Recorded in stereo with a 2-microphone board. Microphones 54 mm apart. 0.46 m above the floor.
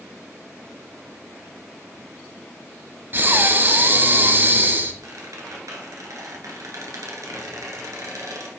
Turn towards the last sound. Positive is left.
turn(degrees=-80)